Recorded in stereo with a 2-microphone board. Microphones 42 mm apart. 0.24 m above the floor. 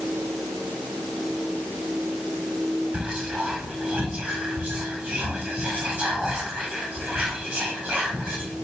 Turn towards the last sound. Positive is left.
turn(degrees=-25)  # may be behind; listen again after turning